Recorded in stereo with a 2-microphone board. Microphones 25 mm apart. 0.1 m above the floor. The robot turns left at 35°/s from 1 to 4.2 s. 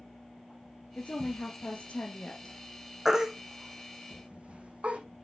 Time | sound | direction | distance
0.9 | a woman speaking | 110° left | 3 m
3.0 | a baby crying | 10° right (ahead or behind) | 3.5 m